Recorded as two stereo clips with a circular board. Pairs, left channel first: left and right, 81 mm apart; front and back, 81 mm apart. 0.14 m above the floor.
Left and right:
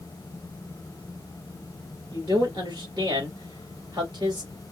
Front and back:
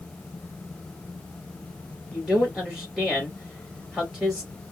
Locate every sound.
2.1 s a man speaking: 100° right, 2.5 m